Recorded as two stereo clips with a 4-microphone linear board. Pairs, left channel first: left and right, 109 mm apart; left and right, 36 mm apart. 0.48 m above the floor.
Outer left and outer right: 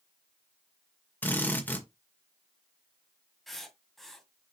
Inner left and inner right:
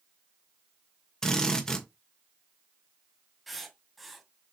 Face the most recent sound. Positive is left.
turn(degrees=0)  # may be behind; listen again after turning